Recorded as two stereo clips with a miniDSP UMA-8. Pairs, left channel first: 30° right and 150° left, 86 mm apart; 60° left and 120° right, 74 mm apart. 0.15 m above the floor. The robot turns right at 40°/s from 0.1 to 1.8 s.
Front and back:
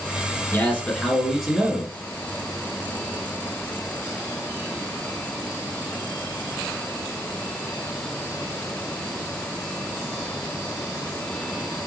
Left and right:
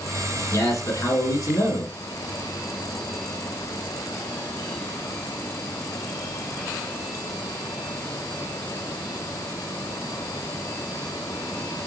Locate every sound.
0.5 s a man speaking: 25° left, 1.6 m; by 2.0 s 80° left, 1.6 m